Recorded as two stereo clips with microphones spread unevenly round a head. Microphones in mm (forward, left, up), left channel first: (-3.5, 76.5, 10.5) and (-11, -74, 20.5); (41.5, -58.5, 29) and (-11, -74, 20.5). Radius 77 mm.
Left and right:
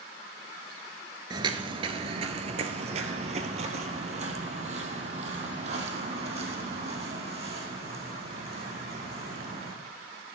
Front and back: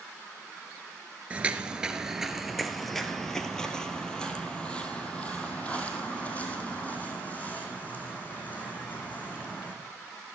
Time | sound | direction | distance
1.3 | footsteps | 110° right | 1.3 m